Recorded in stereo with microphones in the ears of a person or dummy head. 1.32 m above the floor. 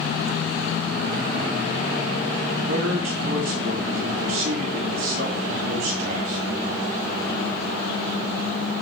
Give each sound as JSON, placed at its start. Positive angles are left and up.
{"t": 2.7, "sound": "a man speaking", "side_deg": -75, "distance_m": 9.5}